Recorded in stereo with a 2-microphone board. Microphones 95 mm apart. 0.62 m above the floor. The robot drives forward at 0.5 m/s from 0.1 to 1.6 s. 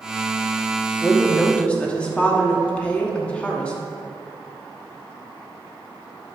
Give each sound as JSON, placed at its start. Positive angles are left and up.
{"t": 1.0, "sound": "a woman speaking", "side_deg": 15, "distance_m": 0.9}